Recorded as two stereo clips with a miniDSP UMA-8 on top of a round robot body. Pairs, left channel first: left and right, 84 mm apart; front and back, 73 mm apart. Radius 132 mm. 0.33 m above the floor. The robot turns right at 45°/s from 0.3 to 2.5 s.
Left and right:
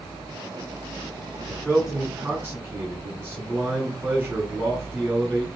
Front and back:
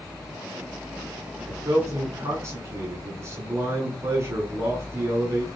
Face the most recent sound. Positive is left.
turn(degrees=-155)